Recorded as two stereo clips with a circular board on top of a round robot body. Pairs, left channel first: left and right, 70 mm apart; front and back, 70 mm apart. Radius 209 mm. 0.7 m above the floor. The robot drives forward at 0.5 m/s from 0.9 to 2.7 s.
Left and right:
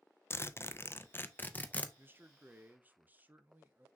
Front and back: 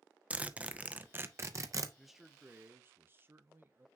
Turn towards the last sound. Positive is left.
turn(degrees=-140)